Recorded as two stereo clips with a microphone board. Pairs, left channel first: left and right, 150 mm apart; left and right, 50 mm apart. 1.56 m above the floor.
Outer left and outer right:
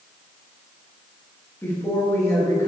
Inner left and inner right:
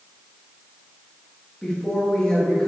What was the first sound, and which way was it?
A woman speaking, 20° left (ahead or behind).